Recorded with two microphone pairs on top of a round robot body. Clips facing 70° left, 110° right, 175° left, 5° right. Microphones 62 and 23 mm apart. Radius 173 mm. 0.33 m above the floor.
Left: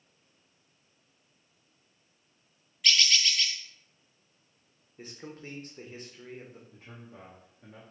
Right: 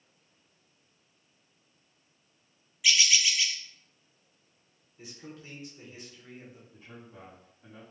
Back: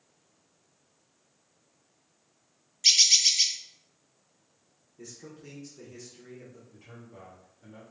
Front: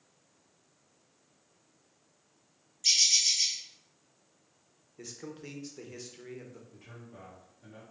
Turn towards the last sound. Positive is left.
turn(degrees=80)